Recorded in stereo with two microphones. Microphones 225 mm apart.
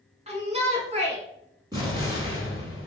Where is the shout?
30° right (ahead or behind), 1.1 m.